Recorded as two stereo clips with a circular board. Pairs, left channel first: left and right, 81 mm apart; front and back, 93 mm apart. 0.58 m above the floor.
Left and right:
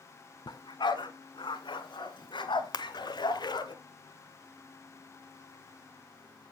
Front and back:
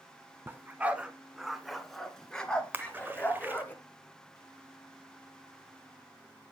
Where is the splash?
115° left, 1.2 m.